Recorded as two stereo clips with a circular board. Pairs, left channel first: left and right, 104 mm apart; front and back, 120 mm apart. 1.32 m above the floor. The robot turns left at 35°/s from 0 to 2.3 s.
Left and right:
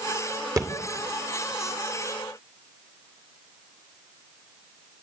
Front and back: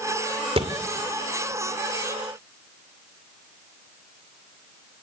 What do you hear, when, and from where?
0.6 s a thud: 145° right, 2 m; by 0.7 s 150° right, 2 m